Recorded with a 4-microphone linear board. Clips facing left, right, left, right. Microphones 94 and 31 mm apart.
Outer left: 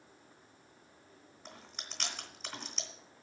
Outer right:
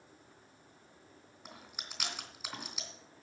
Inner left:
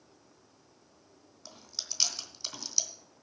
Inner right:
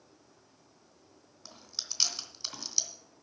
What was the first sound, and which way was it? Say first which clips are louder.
Chewing: even, even; 5° right (ahead or behind).